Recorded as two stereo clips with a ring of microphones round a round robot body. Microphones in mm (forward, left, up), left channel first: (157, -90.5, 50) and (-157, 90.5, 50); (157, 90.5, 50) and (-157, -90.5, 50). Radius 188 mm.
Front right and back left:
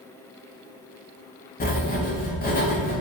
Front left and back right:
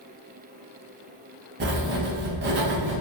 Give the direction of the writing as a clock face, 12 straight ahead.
3 o'clock.